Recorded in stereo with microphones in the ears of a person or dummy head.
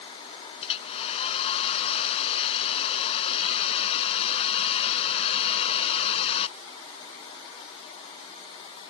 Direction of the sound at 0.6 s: 30° left (ahead or behind).